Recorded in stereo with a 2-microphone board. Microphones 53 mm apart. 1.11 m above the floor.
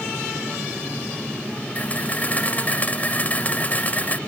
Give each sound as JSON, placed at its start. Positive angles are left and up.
{"t": 1.8, "sound": "a camera shutter", "side_deg": 30}